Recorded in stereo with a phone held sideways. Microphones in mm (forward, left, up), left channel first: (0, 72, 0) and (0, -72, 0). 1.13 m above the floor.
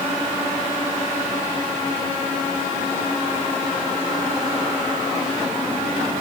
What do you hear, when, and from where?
Only background noise.